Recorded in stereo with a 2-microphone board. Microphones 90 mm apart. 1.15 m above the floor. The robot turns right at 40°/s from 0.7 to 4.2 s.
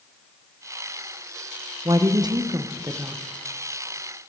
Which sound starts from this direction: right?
A woman speaking, at 1.9 s.